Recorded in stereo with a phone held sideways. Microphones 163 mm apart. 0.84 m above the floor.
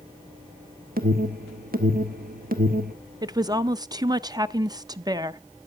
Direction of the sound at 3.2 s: 25° right (ahead or behind).